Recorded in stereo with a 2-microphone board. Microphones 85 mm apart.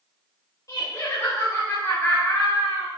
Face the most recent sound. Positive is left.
turn(degrees=15)  # may be behind; listen again after turning